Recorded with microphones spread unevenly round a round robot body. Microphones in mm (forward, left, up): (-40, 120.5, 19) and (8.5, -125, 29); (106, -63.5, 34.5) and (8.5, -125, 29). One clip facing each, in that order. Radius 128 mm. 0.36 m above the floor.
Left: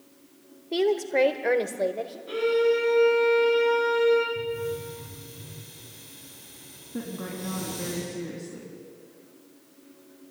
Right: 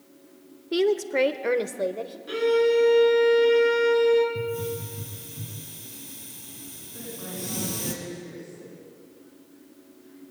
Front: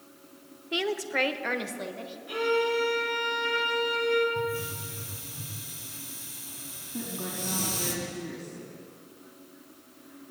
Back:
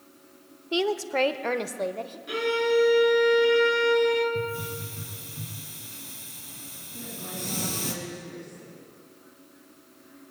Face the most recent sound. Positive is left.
turn(degrees=95)